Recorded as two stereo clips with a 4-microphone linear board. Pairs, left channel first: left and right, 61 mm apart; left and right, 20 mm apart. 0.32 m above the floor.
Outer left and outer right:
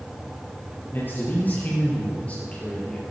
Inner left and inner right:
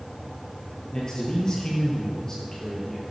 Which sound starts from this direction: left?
A man speaking, at 0.9 s.